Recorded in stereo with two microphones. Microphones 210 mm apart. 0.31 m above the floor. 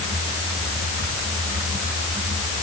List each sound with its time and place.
Only background noise.